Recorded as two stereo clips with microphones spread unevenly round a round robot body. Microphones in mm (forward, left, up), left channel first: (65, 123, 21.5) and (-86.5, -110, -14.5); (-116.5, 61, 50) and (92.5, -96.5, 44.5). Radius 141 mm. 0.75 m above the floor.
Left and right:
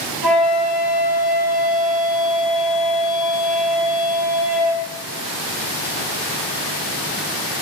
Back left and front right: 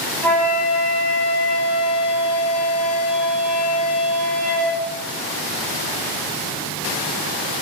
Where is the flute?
130° right, 7 m.